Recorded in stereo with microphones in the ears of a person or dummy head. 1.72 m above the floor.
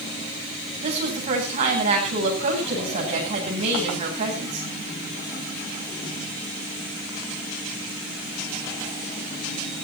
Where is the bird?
No bird in this recording.